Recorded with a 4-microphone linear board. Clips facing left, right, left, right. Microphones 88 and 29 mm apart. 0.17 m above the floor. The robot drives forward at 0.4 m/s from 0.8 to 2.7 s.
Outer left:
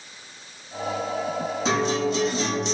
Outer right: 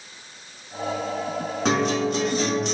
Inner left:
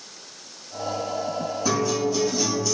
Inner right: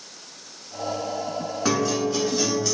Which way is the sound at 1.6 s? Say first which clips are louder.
Outer right 2 dB, inner right 1 dB; 55° right (ahead or behind).